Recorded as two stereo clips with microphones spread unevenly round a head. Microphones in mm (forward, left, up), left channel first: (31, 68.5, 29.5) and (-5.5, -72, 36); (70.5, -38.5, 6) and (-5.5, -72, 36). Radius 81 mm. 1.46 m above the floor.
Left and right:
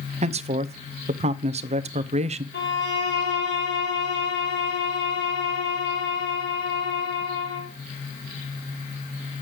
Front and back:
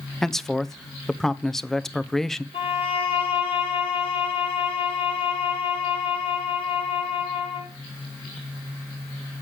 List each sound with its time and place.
0.2 s a man speaking: 60° right, 0.8 m
2.5 s a violin: 60° left, 4.5 m